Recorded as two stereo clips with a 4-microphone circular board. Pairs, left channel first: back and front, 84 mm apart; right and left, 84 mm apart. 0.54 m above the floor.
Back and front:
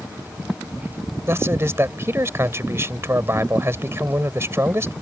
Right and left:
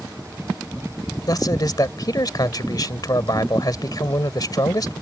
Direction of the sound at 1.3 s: 55° right.